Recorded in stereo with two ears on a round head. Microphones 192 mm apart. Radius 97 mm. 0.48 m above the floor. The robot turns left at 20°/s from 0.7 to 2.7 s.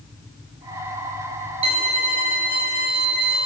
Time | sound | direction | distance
1.6 | a violin | 30° right (ahead or behind) | 0.5 m